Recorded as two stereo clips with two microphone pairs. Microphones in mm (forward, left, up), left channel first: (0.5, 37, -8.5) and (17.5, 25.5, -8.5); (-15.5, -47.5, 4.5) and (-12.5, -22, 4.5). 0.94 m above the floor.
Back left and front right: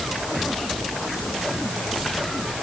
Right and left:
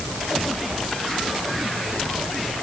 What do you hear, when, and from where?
Only background noise.